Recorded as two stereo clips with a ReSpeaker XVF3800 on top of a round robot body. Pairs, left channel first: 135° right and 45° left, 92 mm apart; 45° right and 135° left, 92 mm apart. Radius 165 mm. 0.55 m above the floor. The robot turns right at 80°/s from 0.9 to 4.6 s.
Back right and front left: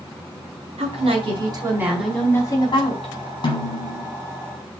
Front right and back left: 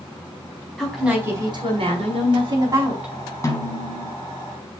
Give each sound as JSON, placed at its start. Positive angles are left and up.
{"t": 0.8, "sound": "a woman speaking", "azimuth_deg": 40, "distance_m": 5.0}
{"t": 3.4, "sound": "a snare drum", "azimuth_deg": -105, "distance_m": 4.5}